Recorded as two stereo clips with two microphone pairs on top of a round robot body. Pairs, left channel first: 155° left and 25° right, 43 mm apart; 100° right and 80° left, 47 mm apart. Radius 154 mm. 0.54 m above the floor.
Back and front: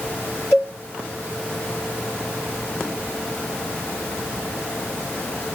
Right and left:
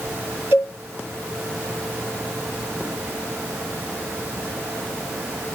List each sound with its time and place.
0.5 s a cowbell: 120° left, 2 m